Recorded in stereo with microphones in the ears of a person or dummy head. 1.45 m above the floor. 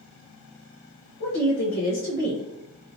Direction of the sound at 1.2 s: 70° left (ahead or behind).